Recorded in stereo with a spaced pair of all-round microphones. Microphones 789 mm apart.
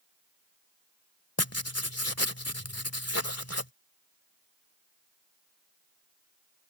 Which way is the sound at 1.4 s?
20° left (ahead or behind).